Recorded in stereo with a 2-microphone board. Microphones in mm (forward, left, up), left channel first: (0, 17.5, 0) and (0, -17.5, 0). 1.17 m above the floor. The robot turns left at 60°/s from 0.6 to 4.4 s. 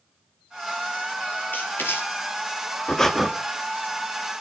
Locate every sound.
1.5 s writing: 60° left (ahead or behind), 4 m; by 2.0 s 75° left (ahead or behind), 4 m
2.9 s breathing: 20° left (ahead or behind), 1.4 m; by 3.3 s 5° right (ahead or behind), 1.4 m